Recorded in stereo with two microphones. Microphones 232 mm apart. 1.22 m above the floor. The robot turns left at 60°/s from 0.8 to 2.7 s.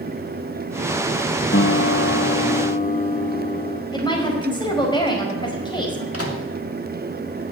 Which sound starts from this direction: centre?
A woman speaking, at 3.9 s.